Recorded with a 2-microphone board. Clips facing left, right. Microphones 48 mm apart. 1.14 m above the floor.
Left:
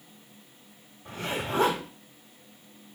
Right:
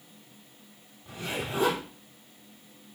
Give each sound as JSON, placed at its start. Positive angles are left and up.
{"t": 1.1, "sound": "a zipper", "side_deg": 70, "distance_m": 6.5}